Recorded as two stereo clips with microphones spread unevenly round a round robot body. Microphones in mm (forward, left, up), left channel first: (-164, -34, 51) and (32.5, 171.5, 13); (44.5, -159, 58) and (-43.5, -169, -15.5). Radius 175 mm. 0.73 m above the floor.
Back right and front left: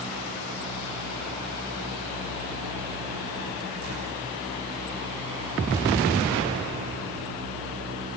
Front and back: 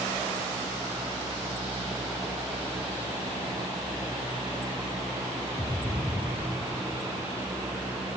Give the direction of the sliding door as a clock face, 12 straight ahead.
No sliding door in this recording.